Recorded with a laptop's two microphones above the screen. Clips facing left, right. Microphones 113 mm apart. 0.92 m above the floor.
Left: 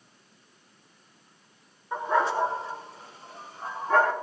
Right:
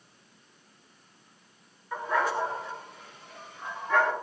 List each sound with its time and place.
1.9 s a dog barking: 25° left (ahead or behind), 4.5 m; by 4.1 s 40° left (ahead or behind), 5.5 m